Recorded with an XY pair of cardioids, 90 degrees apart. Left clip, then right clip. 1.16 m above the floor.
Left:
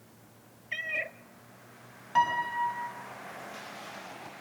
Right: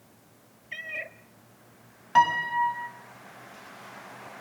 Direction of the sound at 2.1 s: 50° right.